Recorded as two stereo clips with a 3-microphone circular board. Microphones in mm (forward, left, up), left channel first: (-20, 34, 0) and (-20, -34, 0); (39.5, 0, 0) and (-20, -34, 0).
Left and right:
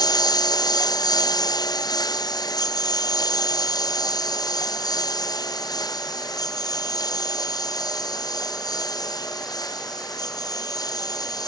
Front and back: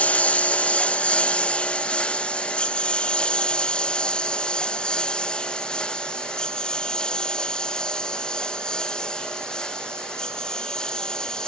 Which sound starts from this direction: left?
A lawn mower, at 0.0 s.